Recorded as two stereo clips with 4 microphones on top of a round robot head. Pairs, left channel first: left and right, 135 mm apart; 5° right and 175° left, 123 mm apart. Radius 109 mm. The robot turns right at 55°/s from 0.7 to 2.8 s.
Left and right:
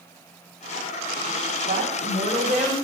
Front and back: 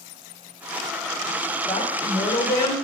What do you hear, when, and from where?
1.7 s a woman speaking: 55° right, 2 m; by 2.8 s 5° left, 2 m